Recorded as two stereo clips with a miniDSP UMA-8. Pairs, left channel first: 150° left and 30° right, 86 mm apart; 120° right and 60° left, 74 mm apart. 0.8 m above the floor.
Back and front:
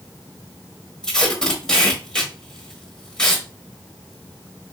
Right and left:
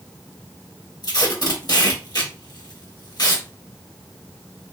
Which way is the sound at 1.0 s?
130° right.